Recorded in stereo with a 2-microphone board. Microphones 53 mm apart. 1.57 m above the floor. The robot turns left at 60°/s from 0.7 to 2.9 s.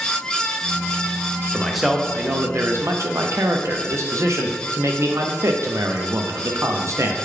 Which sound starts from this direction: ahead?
A man speaking, at 1.5 s.